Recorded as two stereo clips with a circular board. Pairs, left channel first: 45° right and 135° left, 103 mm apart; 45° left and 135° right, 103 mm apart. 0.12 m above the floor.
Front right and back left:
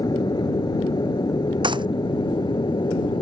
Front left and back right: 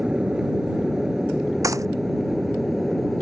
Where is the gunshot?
170° left.